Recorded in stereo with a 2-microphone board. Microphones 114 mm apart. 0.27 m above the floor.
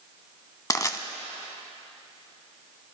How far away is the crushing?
About 0.7 m.